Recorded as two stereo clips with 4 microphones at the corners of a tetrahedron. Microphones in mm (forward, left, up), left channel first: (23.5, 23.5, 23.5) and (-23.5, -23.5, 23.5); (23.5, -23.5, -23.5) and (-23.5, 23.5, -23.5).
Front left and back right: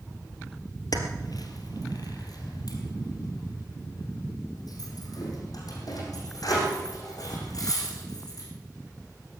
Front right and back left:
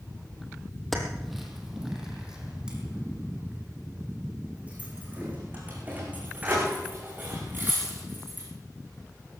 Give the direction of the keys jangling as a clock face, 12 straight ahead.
11 o'clock.